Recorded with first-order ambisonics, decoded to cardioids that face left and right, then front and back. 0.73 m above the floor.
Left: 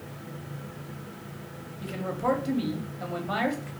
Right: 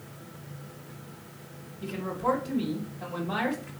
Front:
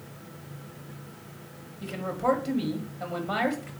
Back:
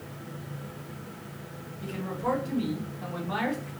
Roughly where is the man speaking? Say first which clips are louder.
Even, front 4 dB; ahead left.